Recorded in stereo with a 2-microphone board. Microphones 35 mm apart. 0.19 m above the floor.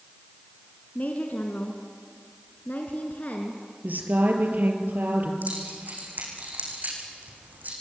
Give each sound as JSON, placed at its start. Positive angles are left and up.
{"t": 0.9, "sound": "a woman speaking", "side_deg": 50, "distance_m": 2.0}
{"t": 3.8, "sound": "a woman speaking", "side_deg": -55, "distance_m": 5.0}
{"t": 5.4, "sound": "keys jangling", "side_deg": -50, "distance_m": 7.5}